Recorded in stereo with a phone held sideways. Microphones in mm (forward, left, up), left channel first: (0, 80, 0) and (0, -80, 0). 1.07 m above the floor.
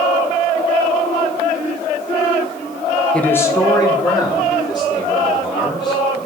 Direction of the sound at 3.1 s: 5° left (ahead or behind).